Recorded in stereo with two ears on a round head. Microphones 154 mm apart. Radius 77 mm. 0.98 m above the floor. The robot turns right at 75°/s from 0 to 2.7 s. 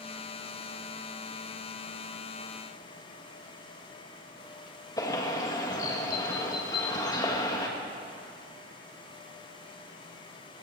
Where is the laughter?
No laughter in this recording.